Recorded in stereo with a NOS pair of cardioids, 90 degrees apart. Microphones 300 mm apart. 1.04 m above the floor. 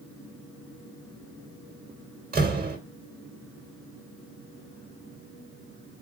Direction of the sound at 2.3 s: 30° right.